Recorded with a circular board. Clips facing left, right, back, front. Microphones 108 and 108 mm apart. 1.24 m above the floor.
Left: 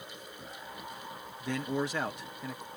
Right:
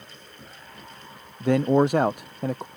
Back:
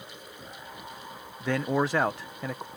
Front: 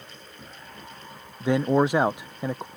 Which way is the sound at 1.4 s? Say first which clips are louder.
Right 14 dB, front 6 dB; 70° right.